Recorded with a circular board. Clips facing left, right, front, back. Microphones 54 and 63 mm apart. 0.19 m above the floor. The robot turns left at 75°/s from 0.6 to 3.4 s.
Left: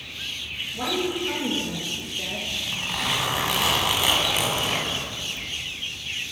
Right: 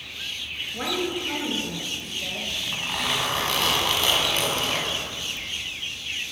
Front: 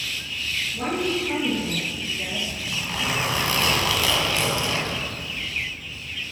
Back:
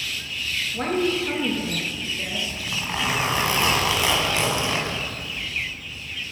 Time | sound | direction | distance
0.7 | a woman speaking | 145° right | 3.5 m
2.5 | a zipper | 140° right | 1.5 m